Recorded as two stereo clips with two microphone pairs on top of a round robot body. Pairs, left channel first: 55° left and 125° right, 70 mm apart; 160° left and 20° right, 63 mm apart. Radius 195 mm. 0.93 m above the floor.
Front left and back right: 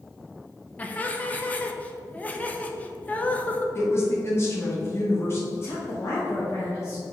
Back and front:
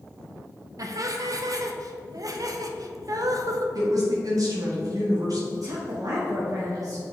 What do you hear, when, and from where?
0.8 s laughter: 10° right, 0.9 m
3.8 s a woman speaking: 5° left, 2.0 m
5.5 s a woman speaking: 5° left, 1.3 m